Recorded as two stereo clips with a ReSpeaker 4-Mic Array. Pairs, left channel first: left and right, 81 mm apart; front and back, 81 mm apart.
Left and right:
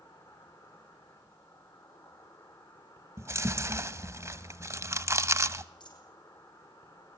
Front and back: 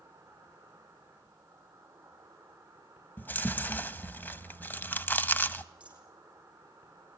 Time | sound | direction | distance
0.0 | an insect | 115° left | 6.5 m
3.2 | chewing | 55° right | 0.7 m
5.8 | a dropped coin | 105° left | 5.5 m